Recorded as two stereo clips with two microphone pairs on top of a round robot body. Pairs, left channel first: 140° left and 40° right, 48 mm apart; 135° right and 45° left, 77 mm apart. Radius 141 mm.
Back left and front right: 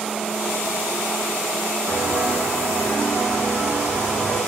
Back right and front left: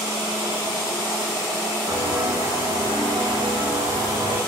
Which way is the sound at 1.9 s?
5° left.